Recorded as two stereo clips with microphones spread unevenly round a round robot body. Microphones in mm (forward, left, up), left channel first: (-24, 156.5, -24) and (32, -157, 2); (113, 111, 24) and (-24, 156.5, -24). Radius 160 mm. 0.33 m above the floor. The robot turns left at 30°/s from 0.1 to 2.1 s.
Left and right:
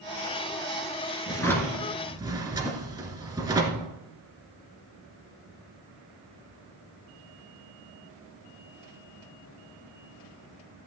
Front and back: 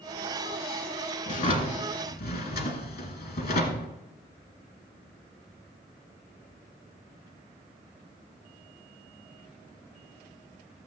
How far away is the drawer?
About 1.9 m.